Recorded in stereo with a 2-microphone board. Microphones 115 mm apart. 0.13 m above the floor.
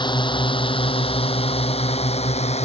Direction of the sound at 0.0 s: 40° left (ahead or behind).